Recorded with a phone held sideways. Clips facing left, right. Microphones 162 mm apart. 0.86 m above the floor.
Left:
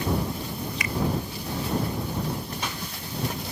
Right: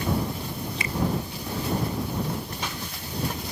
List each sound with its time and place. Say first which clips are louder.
0.8 s a finger snap: left 1 dB; 30° right (ahead or behind)